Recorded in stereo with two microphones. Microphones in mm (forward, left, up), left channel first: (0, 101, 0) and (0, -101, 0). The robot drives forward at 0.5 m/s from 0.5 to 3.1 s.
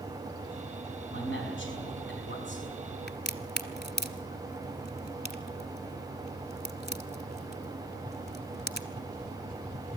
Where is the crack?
55° left (ahead or behind), 1.3 m.